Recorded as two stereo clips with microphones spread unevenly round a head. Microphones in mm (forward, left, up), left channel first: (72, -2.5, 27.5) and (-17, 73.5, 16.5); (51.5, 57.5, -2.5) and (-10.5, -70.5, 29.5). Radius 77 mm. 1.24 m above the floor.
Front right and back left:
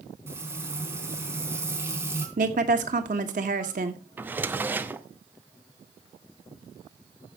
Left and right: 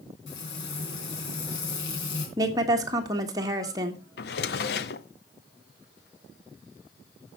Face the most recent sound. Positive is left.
turn(degrees=65)